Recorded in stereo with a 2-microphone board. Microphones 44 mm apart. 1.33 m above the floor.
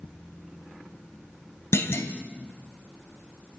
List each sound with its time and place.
1.7 s a clunk: 70° left (ahead or behind), 2.5 m